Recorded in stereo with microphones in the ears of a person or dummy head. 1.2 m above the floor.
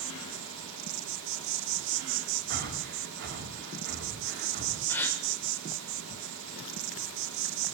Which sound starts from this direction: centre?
A gasp, at 4.9 s.